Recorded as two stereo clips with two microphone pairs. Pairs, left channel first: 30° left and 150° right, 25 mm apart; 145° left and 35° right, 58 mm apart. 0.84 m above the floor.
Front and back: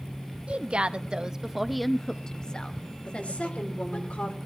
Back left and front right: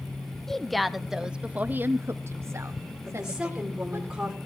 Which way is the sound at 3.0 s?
40° left.